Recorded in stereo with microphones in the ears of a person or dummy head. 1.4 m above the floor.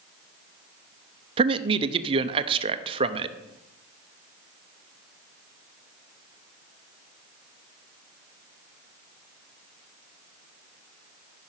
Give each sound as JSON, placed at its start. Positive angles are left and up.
{"t": 1.4, "sound": "a man speaking", "side_deg": -30, "distance_m": 0.6}